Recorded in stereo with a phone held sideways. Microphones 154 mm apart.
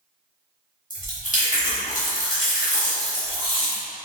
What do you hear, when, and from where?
0.9 s chewing: 55° left (ahead or behind), 1.6 m